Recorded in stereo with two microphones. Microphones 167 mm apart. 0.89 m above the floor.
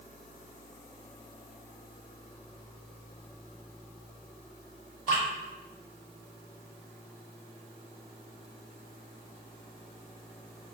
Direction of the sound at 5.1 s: 50° left (ahead or behind).